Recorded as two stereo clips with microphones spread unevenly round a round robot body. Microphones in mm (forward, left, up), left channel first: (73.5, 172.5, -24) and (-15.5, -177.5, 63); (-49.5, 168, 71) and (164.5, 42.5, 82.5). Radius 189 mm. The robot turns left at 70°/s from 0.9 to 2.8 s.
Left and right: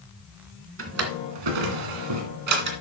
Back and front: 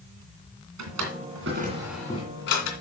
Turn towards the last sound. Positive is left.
turn(degrees=180)